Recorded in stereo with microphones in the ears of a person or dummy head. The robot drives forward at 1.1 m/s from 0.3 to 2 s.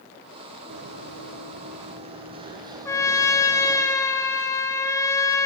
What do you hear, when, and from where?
0.7 s running footsteps: 65° right (ahead or behind), 2.5 m; by 3.9 s 5° right (ahead or behind), 2 m
2.9 s a trumpet: 15° left (ahead or behind), 1.0 m